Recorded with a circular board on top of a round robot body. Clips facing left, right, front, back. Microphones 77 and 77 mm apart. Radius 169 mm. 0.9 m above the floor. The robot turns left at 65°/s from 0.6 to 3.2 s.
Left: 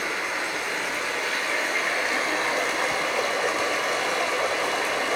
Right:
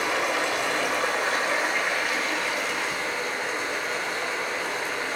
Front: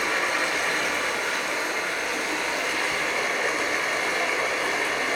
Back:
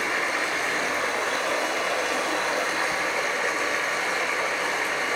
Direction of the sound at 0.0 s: 105° right.